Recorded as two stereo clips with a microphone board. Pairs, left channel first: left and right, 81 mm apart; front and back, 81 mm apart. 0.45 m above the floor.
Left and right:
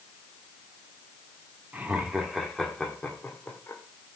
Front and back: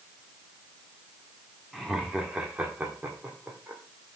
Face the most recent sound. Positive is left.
turn(degrees=130)